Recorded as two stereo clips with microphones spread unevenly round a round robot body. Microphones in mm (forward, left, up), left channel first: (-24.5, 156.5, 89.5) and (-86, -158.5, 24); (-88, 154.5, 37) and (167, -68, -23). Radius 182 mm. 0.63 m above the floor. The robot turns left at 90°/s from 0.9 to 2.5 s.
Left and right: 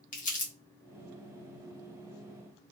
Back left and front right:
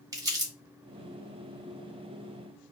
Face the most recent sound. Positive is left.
turn(degrees=-130)